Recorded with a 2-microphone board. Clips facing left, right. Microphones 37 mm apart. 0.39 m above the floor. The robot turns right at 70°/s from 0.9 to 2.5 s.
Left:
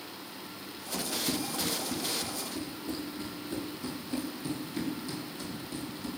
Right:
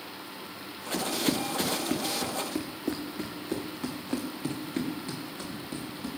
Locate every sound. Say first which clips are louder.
0.9 s running footsteps: right 5 dB; 35° right (ahead or behind), 2.5 m; by 6.1 s 40° right (ahead or behind), 6 m